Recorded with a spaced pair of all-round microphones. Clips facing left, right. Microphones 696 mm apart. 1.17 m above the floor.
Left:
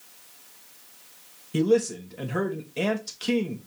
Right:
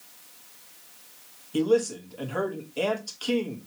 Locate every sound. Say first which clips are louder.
1.5 s a man speaking: left 1 dB; 55° left (ahead or behind), 1.2 m